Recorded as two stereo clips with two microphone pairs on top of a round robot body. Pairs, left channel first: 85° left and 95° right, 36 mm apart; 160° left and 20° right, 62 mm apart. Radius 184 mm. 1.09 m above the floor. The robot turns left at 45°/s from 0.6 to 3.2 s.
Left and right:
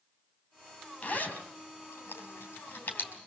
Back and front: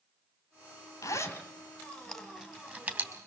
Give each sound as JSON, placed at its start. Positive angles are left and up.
{"t": 1.0, "sound": "a zipper", "azimuth_deg": 125, "distance_m": 3.0}